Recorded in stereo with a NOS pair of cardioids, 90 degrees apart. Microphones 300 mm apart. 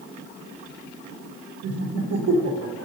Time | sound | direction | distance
1.6 | laughter | 60° right | 1.2 m